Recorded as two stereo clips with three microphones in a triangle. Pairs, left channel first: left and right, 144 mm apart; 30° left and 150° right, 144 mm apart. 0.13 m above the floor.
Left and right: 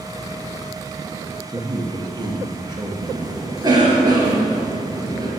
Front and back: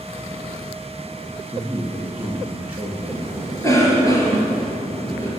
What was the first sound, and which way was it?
A man speaking, 85° right.